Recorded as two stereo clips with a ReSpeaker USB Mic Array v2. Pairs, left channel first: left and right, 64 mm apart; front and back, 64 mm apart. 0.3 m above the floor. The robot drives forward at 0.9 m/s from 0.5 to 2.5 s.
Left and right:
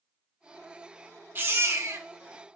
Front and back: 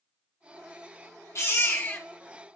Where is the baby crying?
40° right, 1.6 m; by 2.1 s 60° right, 1.1 m.